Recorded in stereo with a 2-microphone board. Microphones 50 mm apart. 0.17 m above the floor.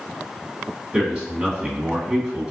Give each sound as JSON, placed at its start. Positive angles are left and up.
{"t": 0.9, "sound": "a man speaking", "side_deg": -20, "distance_m": 1.6}